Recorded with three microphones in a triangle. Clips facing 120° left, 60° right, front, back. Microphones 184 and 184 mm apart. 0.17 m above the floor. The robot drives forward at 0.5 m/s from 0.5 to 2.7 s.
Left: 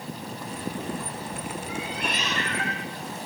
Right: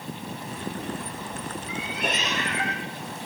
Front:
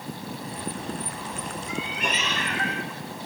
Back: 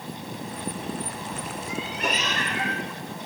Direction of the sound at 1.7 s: 125° right.